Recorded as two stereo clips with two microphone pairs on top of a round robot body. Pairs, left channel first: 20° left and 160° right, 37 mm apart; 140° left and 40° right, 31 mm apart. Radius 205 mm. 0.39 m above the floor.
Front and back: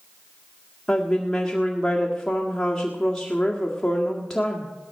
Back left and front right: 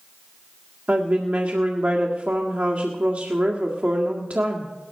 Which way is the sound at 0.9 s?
50° right.